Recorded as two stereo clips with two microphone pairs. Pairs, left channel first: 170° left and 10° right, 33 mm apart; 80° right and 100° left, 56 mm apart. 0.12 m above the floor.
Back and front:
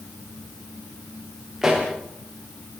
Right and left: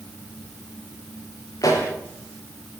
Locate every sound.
1.6 s a pop: 90° right, 9.5 m